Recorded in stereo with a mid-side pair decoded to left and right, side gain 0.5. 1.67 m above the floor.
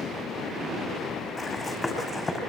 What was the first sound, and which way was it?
Running footsteps, 15° left.